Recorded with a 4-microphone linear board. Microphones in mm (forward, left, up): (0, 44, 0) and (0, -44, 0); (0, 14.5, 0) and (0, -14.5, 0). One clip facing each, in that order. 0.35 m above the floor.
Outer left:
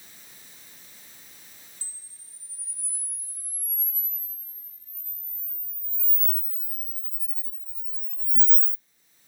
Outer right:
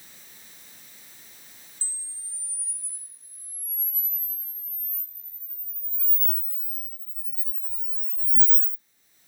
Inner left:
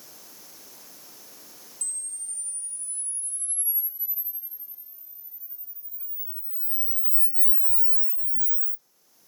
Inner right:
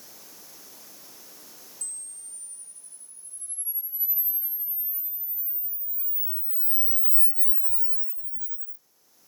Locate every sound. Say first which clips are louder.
1.8 s a camera shutter: outer right 4 dB, inner left 5 dB; 10° right (ahead or behind), 1.0 m